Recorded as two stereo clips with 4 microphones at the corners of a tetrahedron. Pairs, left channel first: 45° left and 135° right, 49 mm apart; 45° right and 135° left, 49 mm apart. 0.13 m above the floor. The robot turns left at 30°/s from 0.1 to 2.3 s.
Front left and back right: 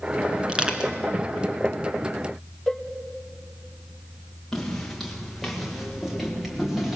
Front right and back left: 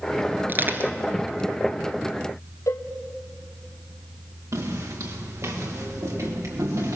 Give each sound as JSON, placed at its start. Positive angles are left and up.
{"t": 0.5, "sound": "crushing", "azimuth_deg": 165, "distance_m": 1.8}
{"t": 2.7, "sound": "a cowbell", "azimuth_deg": -45, "distance_m": 3.0}
{"t": 4.5, "sound": "footsteps", "azimuth_deg": 125, "distance_m": 5.0}